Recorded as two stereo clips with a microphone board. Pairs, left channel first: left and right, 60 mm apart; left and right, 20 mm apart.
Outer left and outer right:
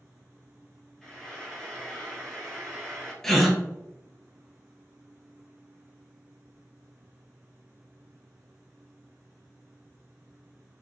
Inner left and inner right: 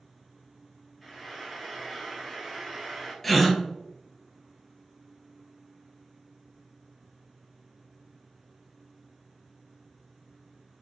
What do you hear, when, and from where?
1.0 s frying: 10° left (ahead or behind), 1.2 m
3.2 s a gasp: 5° left (ahead or behind), 0.7 m